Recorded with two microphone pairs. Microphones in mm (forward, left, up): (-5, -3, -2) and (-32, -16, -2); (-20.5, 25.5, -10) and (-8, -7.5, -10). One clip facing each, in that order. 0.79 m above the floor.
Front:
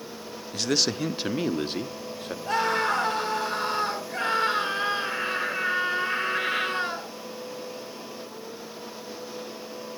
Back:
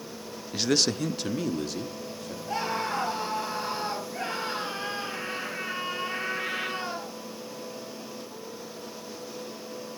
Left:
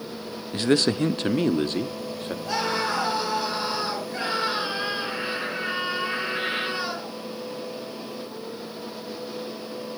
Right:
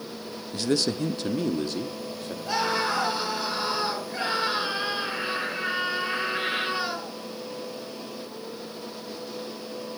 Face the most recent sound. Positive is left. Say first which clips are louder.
# front 6 dB, right 1 dB
turn(degrees=5)